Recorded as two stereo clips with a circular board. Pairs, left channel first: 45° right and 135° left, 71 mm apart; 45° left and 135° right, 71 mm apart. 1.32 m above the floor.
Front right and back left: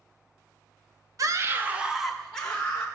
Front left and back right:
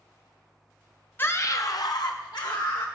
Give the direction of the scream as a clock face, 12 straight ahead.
9 o'clock.